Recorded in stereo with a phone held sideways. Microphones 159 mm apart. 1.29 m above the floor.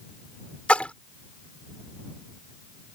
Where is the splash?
5° left (ahead or behind).